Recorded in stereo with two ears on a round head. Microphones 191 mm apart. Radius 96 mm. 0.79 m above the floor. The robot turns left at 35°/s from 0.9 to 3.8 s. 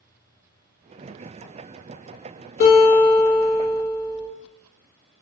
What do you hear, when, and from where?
2.6 s a guitar: 70° left, 0.8 m; by 4.3 s 30° left, 0.8 m